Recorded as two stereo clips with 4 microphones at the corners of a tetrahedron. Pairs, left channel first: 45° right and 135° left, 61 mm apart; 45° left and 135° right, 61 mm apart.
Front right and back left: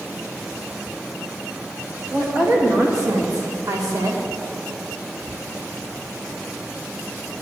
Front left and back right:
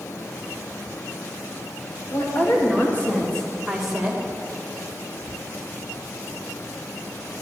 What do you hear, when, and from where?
2.1 s a woman speaking: 90° left, 3.5 m; by 4.2 s 155° left, 2.5 m